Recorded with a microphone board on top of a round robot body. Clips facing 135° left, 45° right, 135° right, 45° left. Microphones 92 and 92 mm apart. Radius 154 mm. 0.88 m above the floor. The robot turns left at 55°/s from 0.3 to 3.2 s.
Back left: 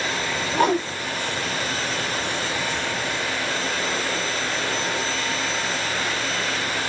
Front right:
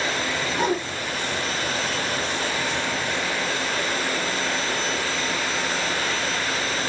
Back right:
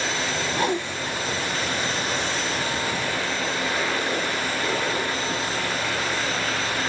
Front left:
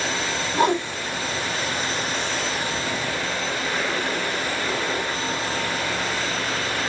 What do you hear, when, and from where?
0.5 s a whoosh: 105° left, 2.5 m; by 0.8 s 85° left, 2.5 m